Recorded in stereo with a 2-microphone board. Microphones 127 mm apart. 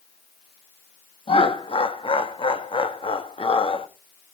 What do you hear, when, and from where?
1.3 s laughter: 45° left (ahead or behind), 1.2 m